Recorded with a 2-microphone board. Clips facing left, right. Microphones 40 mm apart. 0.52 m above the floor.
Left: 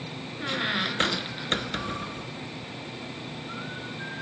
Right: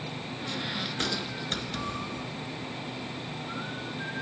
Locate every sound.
0.4 s a squeak: 40° left (ahead or behind), 0.6 m